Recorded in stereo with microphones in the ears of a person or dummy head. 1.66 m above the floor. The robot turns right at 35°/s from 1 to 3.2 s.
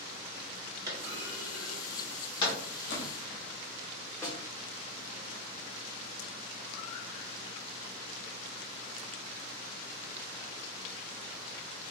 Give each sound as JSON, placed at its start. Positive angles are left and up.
{"t": 0.9, "sound": "a clunk", "side_deg": -20, "distance_m": 1.6}
{"t": 2.9, "sound": "a splash", "side_deg": 75, "distance_m": 1.1}
{"t": 4.2, "sound": "a snare drum", "side_deg": 15, "distance_m": 1.0}